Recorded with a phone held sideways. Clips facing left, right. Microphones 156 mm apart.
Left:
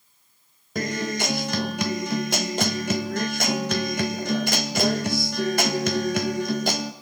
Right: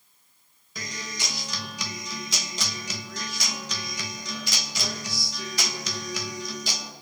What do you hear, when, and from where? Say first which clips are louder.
0.8 s a guitar: left 12 dB; 60° left (ahead or behind), 1.6 m